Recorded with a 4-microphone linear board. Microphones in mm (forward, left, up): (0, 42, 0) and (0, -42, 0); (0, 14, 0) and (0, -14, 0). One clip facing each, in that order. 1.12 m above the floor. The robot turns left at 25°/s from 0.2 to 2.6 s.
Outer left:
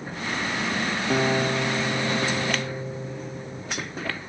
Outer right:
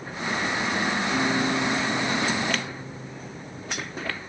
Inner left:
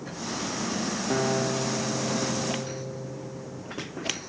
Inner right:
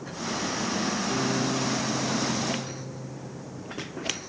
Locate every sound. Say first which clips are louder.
1.1 s a guitar: outer left 4 dB, inner left 4 dB; 95° left, 0.8 m; by 3.6 s 60° left, 0.8 m